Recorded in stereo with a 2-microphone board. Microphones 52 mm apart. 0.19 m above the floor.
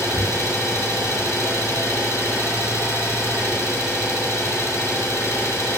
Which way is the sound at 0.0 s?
75° left (ahead or behind).